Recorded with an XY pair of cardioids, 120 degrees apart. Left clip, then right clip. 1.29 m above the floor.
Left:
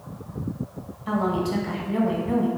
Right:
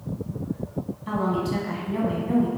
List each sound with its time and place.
1.1 s a woman speaking: 10° left, 0.7 m